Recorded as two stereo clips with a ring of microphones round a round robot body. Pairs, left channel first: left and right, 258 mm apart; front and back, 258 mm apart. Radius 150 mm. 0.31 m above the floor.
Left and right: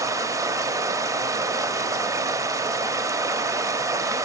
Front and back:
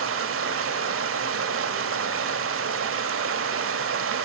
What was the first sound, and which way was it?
Running water, 165° right.